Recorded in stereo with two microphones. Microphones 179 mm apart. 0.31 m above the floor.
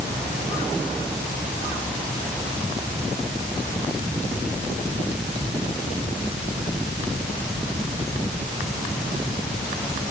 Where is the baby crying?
I don't hear a baby crying.